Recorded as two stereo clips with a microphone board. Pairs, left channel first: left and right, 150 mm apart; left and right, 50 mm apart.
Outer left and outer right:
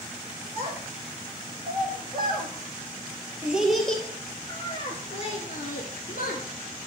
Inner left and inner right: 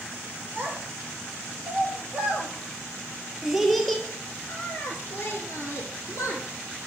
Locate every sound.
0.6 s a child speaking: 45° right (ahead or behind), 3 m; by 6.4 s 65° left (ahead or behind), 2 m